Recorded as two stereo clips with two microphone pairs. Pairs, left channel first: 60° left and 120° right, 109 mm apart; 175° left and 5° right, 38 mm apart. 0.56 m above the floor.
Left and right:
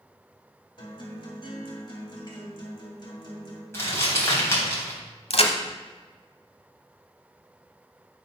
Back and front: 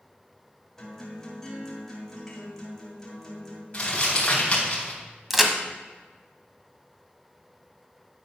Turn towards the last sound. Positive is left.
turn(degrees=80)